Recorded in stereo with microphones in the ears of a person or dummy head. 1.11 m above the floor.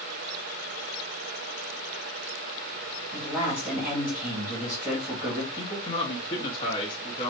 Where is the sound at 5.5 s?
30° left (ahead or behind), 1.0 m.